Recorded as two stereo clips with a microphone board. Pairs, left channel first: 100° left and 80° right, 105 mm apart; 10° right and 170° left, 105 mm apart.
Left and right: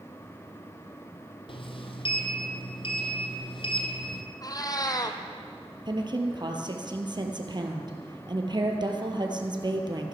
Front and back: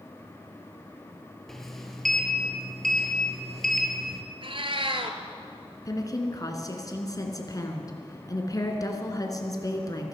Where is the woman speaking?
55° right, 2 m.